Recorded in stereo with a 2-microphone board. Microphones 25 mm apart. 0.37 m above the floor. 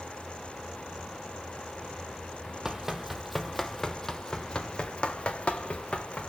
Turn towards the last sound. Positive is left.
turn(degrees=65)  # may be behind; listen again after turning